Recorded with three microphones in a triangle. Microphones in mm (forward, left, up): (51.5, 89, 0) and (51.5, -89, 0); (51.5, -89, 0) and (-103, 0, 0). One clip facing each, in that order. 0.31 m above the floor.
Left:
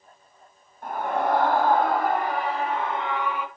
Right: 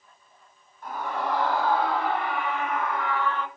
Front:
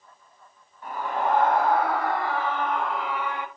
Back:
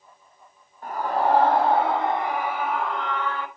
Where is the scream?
110° left, 1.8 m; by 3.5 s 15° left, 1.0 m.